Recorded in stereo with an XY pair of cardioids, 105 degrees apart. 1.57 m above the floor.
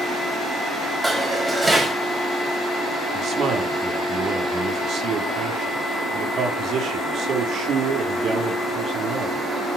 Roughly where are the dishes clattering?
Ahead.